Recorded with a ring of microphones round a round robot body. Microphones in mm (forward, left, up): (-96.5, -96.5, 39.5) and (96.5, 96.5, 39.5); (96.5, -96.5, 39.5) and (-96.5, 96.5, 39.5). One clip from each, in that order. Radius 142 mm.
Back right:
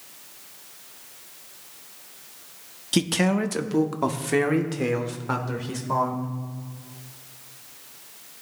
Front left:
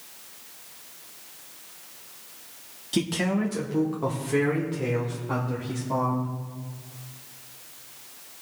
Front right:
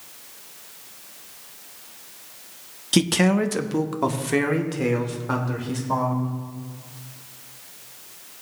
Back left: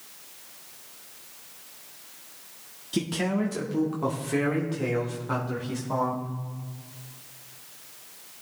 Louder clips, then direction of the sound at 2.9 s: Back right 3 dB, front right 8 dB; 75° right.